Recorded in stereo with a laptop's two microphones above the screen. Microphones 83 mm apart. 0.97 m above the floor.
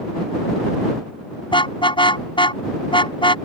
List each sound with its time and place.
1.5 s a car horn: 85° left